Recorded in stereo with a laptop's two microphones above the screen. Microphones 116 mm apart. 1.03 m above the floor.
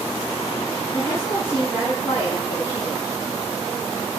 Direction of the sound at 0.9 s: 5° left (ahead or behind).